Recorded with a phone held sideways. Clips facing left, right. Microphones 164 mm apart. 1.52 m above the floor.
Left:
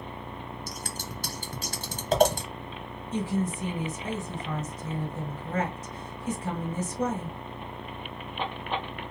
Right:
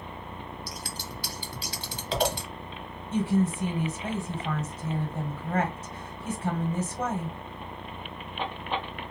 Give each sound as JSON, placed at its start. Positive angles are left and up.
{"t": 0.7, "sound": "scissors", "side_deg": 50, "distance_m": 1.1}
{"t": 3.1, "sound": "a woman speaking", "side_deg": -75, "distance_m": 2.0}